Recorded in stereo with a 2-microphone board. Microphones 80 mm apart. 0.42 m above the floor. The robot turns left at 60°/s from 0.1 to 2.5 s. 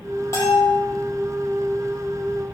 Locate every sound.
0.3 s a bell: 35° left (ahead or behind), 7.5 m; by 0.8 s 10° left (ahead or behind), 7.5 m